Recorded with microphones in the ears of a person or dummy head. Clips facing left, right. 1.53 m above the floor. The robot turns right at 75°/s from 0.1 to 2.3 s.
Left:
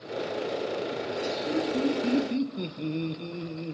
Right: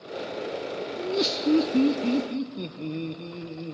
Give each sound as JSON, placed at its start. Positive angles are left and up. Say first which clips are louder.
{"t": 1.0, "sound": "laughter", "louder": "right 4 dB", "azimuth_deg": -95, "distance_m": 0.8}